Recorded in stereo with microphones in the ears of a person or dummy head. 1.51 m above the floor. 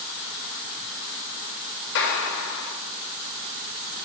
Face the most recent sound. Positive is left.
turn(degrees=80)